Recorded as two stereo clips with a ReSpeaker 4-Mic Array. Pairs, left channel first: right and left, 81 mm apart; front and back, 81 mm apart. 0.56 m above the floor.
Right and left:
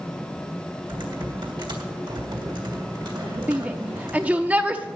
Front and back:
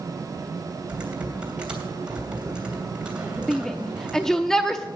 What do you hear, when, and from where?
0.9 s typing on a keyboard: 100° left, 3 m
3.5 s a shout: 70° left, 0.8 m